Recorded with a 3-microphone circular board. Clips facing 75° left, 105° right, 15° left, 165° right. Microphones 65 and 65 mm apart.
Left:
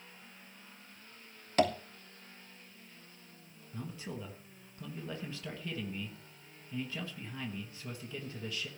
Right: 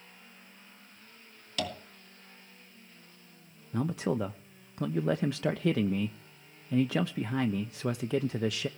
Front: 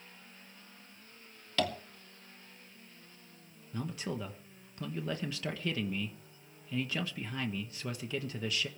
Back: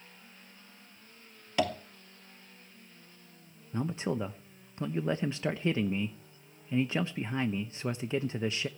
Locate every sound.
1.6 s tapping: 125° left, 2.5 m
3.7 s a man speaking: 105° right, 1.0 m